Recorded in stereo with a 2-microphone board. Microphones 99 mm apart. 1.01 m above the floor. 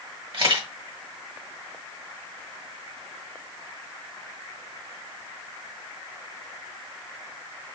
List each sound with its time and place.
0.3 s a camera shutter: 55° right (ahead or behind), 1.3 m